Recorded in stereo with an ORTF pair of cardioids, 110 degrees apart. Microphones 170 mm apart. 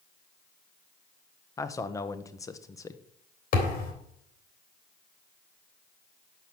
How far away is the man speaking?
About 0.9 m.